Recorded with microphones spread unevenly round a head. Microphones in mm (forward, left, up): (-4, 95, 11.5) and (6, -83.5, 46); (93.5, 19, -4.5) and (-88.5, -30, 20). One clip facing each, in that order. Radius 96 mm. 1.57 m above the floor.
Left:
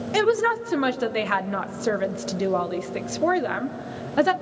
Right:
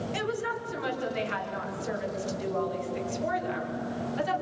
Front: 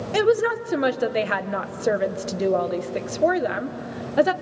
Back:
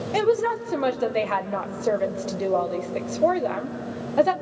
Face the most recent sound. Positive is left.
turn(degrees=90)